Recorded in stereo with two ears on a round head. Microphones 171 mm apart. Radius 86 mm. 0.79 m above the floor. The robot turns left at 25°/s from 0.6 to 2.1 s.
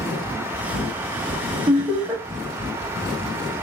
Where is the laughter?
15° right (ahead or behind), 0.9 m; by 2.2 s 5° right (ahead or behind), 0.9 m.